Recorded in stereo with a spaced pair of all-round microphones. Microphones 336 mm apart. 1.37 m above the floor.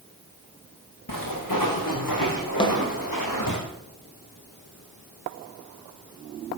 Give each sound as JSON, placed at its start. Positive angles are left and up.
{"t": 1.1, "sound": "footsteps", "side_deg": 75, "distance_m": 5.5}
{"t": 2.6, "sound": "a snare drum", "side_deg": 15, "distance_m": 2.0}